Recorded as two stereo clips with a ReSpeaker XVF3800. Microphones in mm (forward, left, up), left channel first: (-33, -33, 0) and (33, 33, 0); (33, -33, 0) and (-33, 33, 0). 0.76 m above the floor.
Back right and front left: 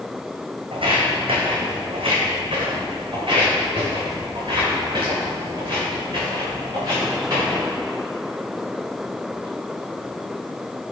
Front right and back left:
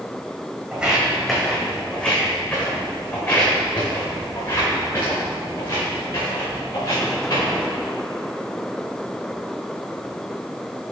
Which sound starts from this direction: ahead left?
Footsteps, at 0.7 s.